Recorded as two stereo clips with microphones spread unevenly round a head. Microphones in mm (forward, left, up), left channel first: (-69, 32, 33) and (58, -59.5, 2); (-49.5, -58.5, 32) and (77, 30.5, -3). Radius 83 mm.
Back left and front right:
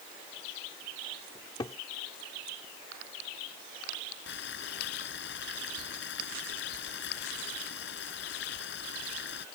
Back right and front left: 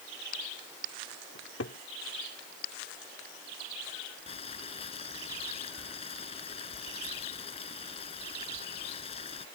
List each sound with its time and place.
1.4 s a cupboard door: 155° right
4.3 s boiling: 160° left